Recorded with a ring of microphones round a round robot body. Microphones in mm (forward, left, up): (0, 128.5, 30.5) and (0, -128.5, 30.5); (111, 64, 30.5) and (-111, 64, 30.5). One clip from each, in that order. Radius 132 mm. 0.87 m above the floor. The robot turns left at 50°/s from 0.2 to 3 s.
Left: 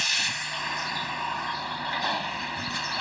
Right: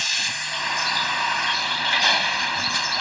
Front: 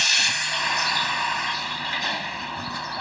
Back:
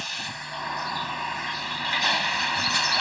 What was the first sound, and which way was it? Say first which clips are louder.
A vehicle: right 2 dB, front 12 dB; 10° right.